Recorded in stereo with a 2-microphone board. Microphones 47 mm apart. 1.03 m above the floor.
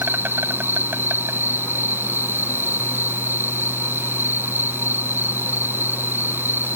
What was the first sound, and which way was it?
An insect, 50° right (ahead or behind).